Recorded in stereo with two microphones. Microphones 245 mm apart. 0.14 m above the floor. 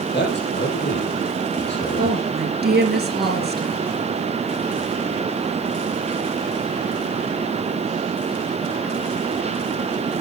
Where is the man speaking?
45° left (ahead or behind), 4.5 m.